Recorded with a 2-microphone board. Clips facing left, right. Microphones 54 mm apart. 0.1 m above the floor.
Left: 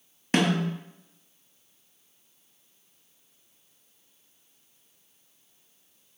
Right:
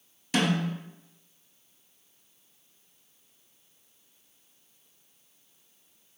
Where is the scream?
I don't hear a scream.